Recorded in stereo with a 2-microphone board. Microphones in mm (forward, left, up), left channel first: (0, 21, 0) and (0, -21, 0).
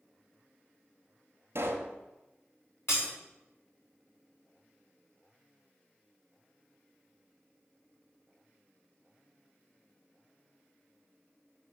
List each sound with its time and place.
1.6 s a pop: 60° right (ahead or behind), 1.1 m
2.9 s breaking glass: 65° left (ahead or behind), 3.5 m